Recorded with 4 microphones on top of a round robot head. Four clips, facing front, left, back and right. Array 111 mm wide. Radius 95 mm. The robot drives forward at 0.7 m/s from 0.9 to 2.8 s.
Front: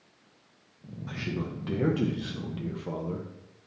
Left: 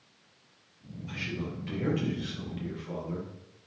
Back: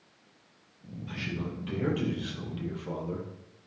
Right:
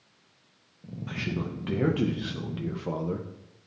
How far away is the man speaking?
About 2.5 m.